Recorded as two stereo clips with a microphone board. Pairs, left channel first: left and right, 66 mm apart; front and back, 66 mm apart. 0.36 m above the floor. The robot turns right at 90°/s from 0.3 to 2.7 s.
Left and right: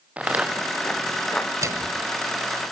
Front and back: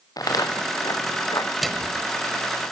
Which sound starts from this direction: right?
A microwave, at 1.6 s.